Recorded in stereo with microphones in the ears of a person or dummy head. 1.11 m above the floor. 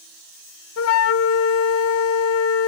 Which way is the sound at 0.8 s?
75° left (ahead or behind).